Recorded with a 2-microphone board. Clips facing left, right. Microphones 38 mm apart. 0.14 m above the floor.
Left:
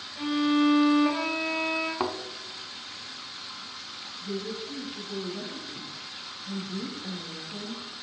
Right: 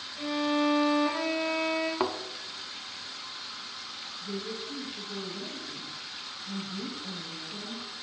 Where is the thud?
Centre (ahead or behind), 0.6 m.